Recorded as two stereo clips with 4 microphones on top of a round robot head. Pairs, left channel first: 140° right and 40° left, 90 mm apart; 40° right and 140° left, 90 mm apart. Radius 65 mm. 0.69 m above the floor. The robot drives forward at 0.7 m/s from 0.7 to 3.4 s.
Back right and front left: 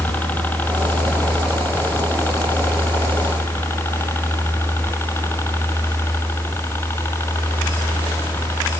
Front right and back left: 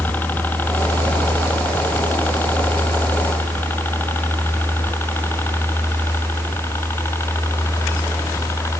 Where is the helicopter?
90° right.